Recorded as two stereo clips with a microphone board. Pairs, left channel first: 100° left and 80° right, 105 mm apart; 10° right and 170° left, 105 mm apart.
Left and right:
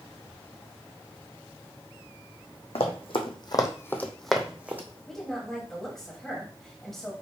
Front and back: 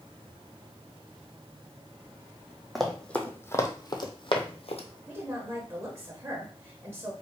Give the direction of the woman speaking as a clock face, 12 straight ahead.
6 o'clock.